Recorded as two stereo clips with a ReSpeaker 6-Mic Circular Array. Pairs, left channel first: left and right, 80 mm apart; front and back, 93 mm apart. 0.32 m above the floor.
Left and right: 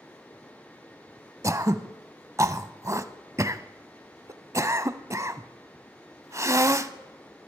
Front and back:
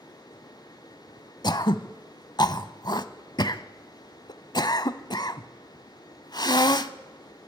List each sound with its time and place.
1.4 s throat clearing: 40° right, 0.6 m